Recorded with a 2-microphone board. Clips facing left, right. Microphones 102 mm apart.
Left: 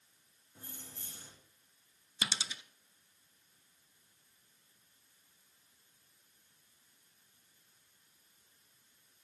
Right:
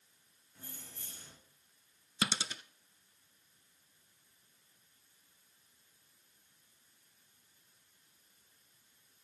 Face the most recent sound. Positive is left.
turn(degrees=-50)  # may be behind; listen again after turning